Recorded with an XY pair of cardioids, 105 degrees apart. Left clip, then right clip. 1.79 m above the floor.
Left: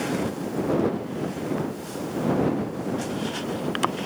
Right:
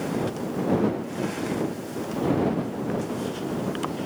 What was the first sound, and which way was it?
Only background noise.